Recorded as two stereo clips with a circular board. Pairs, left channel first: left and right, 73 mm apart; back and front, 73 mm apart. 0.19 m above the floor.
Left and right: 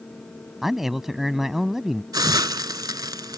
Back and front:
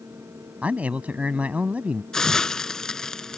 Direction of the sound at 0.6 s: 15° right.